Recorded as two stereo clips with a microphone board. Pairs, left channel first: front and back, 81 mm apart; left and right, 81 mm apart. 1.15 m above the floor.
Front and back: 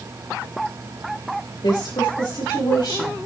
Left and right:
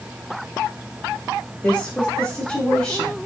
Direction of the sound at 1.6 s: 20° left.